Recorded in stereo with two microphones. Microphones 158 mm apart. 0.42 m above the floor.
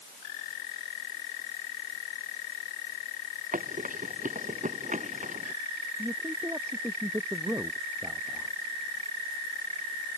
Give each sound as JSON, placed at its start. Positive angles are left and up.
{"t": 3.5, "sound": "running footsteps", "side_deg": -55}
{"t": 6.0, "sound": "a man speaking", "side_deg": -15}